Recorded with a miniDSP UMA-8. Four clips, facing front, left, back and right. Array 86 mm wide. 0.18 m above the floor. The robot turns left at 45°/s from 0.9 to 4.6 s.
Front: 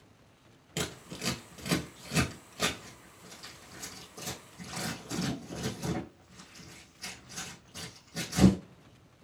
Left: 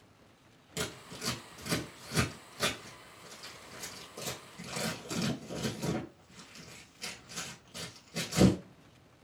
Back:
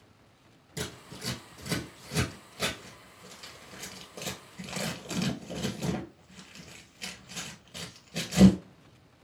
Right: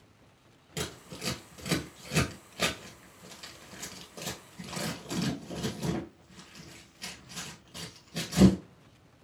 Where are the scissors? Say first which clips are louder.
Right 1 dB, front 2 dB; 10° right, 1.4 m; by 8.6 s straight behind, 1.4 m.